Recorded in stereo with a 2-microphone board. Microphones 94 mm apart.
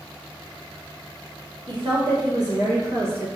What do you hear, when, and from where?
1.7 s a woman speaking: 60° right (ahead or behind), 1.7 m; by 3.3 s 25° right (ahead or behind), 1.4 m